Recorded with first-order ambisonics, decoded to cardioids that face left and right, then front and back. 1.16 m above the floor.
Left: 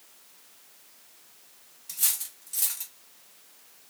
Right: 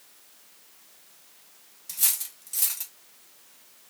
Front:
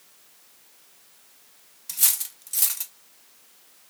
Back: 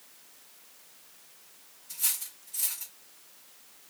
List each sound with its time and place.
1.9 s cutlery clinking: 10° right, 0.7 m